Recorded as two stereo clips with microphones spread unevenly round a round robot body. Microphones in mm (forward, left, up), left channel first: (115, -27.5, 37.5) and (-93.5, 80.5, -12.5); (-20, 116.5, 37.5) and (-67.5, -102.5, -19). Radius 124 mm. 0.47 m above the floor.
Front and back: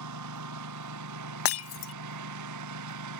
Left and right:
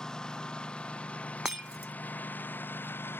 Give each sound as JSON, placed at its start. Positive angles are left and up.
{"t": 0.0, "sound": "a lawn mower", "azimuth_deg": 165}
{"t": 1.4, "sound": "breaking glass", "azimuth_deg": -10}